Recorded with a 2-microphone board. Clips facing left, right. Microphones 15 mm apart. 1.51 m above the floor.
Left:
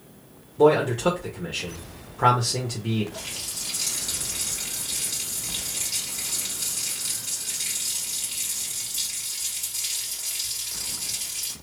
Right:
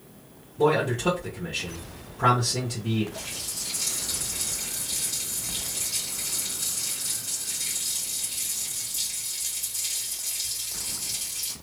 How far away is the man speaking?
About 1.1 m.